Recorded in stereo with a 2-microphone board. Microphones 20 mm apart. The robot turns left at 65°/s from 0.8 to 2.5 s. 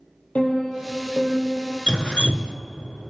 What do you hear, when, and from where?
0.3 s a piano: 105° left, 4 m; by 1.8 s 40° left, 4 m
1.9 s dripping: 140° left, 0.6 m; by 2.6 s 100° left, 0.6 m